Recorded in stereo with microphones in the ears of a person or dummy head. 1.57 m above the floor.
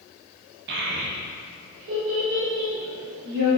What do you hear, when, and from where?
0.7 s a child speaking: 65° right (ahead or behind), 1.4 m; by 3.5 s 85° right, 3.5 m